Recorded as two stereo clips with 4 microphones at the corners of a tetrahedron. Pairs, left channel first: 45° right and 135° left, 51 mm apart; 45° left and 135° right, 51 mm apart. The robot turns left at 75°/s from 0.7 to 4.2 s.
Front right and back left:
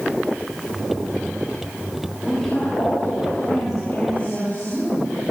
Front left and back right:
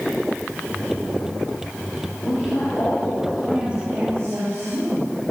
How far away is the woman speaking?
About 8.5 m.